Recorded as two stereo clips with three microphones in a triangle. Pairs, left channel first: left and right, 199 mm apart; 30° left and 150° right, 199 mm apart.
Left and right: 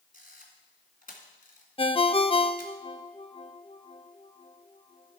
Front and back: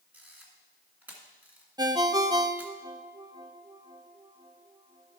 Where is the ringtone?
145° left, 0.6 m.